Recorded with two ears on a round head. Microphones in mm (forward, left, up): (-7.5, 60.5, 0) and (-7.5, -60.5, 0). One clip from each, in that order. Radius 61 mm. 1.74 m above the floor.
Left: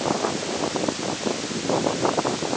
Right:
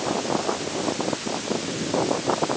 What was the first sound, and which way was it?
Only background noise.